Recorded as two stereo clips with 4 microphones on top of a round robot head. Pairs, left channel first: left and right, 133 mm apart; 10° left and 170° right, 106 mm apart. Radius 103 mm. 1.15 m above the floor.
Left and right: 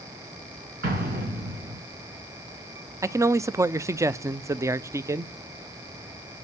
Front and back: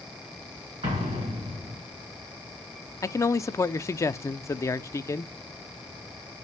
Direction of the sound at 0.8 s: 115° right.